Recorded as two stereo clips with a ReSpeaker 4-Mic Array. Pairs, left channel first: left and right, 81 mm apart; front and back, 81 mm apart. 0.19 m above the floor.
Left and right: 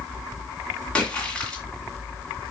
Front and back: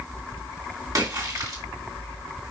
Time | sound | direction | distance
0.9 | a splash | 165° left | 2.5 m